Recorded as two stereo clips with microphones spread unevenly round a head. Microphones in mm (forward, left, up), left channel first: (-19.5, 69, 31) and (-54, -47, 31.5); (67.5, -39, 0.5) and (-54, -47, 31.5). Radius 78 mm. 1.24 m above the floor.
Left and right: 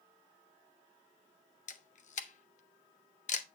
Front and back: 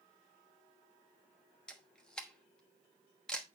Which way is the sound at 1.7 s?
95° left.